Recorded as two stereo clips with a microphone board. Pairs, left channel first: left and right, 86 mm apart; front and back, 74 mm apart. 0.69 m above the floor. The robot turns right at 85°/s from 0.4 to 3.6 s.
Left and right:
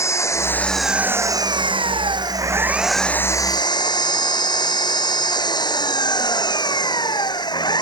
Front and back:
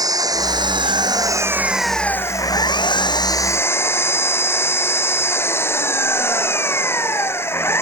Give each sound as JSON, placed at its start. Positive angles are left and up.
{"t": 0.0, "sound": "an engine running", "azimuth_deg": 145}